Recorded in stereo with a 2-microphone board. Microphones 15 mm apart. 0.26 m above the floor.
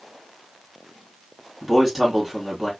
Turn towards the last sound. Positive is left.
turn(degrees=-25)  # may be behind; listen again after turning